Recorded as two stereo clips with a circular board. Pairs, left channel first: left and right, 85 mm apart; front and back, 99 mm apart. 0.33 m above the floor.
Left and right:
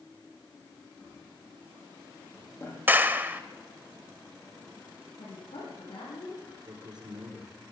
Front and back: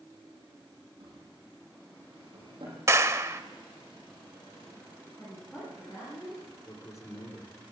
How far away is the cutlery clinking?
I don't hear cutlery clinking.